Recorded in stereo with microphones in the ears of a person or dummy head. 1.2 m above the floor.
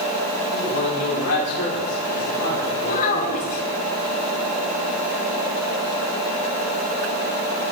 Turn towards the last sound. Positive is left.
turn(degrees=45)  # may be behind; listen again after turning